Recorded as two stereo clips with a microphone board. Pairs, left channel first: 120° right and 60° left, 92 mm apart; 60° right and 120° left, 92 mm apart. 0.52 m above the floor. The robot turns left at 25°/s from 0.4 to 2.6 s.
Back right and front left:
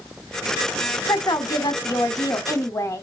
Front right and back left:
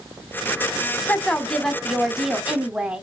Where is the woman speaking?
130° right, 1.1 m; by 3.0 s 165° right, 1.1 m.